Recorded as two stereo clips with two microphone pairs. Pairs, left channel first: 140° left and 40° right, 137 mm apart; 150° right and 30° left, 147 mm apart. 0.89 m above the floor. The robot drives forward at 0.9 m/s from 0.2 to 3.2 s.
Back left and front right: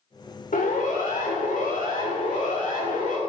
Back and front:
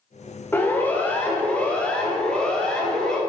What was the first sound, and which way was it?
A siren, 135° left.